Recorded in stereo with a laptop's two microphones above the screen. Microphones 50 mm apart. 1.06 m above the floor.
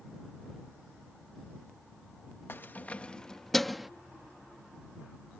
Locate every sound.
2.5 s keys jangling: 50° left (ahead or behind); by 3.9 s 5° right (ahead or behind)